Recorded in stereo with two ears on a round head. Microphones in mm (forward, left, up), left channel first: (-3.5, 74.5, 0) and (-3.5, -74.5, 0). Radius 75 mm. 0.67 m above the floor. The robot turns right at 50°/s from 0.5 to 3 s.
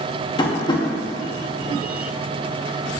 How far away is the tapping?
About 1.0 m.